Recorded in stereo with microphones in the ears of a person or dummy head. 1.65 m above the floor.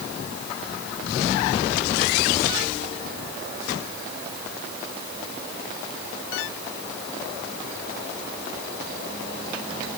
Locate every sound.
Only background noise.